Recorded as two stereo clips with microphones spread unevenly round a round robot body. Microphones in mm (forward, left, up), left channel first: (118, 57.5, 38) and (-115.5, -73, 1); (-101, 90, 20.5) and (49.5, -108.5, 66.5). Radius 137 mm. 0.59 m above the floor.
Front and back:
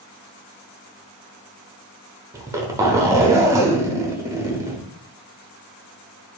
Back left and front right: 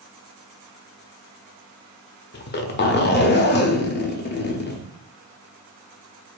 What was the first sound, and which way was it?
A zipper, 140° left.